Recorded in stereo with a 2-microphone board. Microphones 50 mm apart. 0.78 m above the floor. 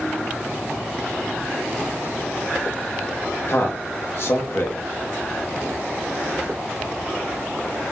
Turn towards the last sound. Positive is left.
turn(degrees=55)  # may be behind; listen again after turning